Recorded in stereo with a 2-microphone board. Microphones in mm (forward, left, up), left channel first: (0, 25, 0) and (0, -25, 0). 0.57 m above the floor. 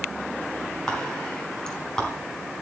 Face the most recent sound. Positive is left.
turn(degrees=15)  # may be behind; listen again after turning